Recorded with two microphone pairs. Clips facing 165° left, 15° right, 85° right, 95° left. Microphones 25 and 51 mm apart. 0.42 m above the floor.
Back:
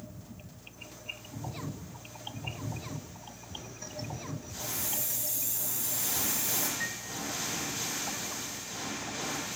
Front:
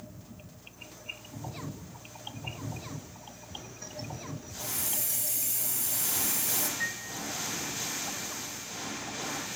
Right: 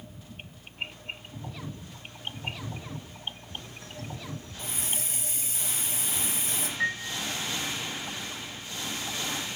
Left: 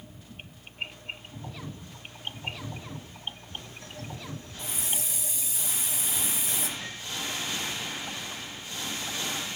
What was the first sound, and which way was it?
A hiss, 40° right.